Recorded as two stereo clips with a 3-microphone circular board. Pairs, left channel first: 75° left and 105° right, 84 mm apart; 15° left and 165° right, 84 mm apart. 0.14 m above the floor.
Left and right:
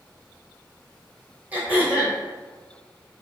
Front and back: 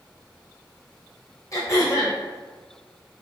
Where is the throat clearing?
35° right, 1.5 m.